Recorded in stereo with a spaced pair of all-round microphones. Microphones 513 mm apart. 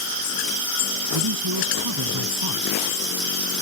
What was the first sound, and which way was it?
A man speaking, 50° right (ahead or behind).